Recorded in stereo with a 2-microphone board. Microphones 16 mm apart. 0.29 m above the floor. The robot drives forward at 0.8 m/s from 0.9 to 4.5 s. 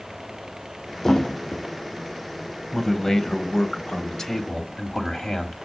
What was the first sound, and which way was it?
A thud, 35° left (ahead or behind).